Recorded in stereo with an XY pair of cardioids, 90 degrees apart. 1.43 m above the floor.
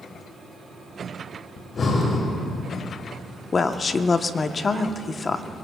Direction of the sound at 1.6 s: 50° left.